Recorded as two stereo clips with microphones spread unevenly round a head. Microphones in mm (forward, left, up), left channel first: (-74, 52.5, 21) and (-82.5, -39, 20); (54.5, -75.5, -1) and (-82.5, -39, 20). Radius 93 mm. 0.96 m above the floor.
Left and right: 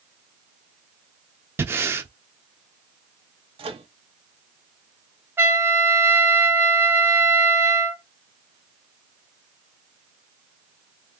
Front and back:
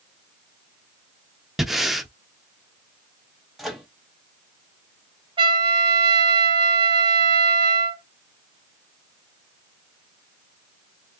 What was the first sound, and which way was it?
Breathing, 125° right.